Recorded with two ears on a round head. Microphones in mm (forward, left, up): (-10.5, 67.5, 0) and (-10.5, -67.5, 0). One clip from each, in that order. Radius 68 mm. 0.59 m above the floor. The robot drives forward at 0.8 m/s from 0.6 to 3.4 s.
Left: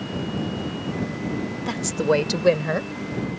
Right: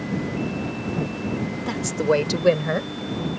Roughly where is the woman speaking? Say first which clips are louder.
Even; centre.